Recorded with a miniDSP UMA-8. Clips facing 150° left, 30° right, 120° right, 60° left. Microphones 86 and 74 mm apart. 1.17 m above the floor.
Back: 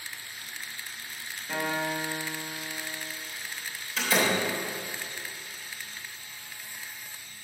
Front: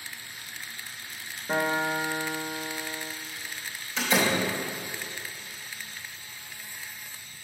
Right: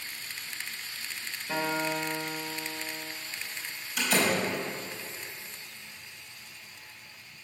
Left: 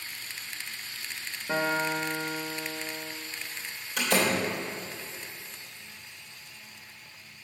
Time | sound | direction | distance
1.5 | a guitar | 20° left | 0.8 m
4.0 | a door slam | 65° left | 3 m